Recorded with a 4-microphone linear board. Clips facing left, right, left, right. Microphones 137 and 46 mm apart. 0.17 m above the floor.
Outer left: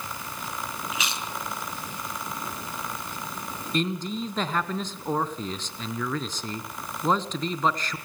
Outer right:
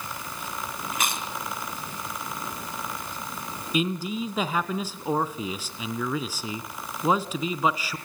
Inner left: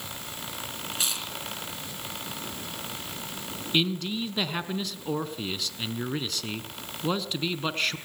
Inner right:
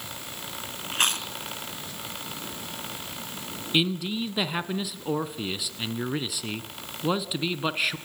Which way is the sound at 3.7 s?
10° right (ahead or behind).